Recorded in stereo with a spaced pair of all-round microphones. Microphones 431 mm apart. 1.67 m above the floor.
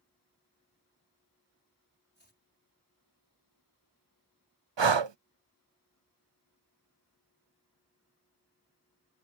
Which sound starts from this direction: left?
Chopping, at 2.1 s.